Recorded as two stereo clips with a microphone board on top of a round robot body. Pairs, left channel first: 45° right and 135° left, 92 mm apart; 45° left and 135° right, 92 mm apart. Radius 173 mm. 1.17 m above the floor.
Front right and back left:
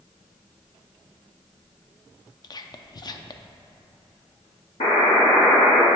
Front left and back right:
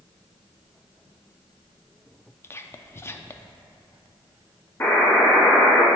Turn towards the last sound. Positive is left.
turn(degrees=-25)